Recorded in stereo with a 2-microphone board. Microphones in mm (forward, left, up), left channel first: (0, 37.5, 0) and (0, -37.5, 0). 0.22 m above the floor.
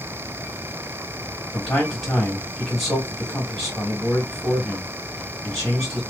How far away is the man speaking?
About 1.6 m.